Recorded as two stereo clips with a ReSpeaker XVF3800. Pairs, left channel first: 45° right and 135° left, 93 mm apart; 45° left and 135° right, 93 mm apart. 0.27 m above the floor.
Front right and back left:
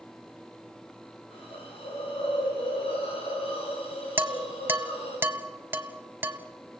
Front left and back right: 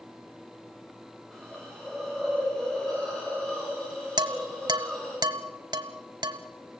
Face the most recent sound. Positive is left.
turn(degrees=-160)